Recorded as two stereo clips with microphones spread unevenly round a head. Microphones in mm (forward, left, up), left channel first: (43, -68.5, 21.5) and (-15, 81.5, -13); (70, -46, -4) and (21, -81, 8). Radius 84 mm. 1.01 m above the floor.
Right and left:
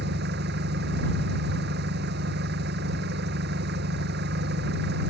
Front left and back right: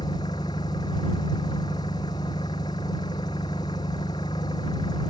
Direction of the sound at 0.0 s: 90° left.